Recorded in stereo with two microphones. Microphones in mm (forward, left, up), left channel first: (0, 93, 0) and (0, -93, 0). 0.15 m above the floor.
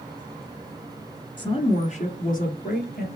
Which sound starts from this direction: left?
A woman speaking, at 1.4 s.